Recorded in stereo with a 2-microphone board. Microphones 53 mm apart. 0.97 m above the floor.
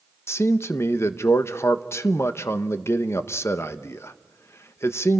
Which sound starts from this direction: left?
A man speaking, at 0.3 s.